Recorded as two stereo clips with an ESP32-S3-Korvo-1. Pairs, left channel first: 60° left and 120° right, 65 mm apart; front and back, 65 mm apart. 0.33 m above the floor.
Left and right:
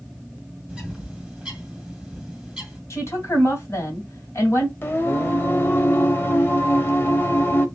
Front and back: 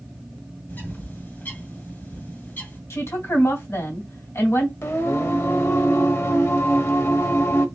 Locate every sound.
0.7 s a bird: 40° right, 1.5 m
2.9 s a woman speaking: 30° left, 2.5 m
4.8 s singing: 20° left, 0.9 m